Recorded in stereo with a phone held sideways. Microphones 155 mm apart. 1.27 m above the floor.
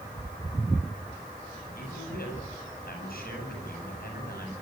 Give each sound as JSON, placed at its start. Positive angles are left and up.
{"t": 1.8, "sound": "a man speaking", "side_deg": 75, "distance_m": 9.0}